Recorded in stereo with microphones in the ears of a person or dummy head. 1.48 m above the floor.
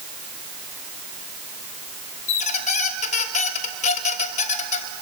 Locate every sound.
2.3 s a squeak: 40° left (ahead or behind), 1.2 m